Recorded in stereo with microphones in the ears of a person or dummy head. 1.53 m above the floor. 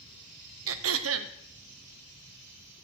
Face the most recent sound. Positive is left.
turn(degrees=-85)